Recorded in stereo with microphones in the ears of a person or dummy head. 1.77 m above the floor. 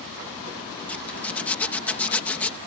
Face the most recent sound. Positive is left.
turn(degrees=10)  # may be behind; listen again after turning